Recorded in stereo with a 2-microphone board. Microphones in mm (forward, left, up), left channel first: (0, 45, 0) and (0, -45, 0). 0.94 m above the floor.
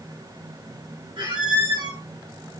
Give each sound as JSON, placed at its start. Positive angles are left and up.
{"t": 1.2, "sound": "a squeak", "side_deg": -70, "distance_m": 3.0}